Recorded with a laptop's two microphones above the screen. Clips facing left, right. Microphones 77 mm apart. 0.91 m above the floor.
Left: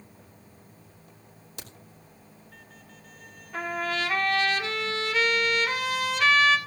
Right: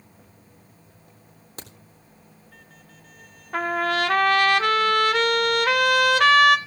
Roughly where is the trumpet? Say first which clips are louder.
Right 6 dB; right.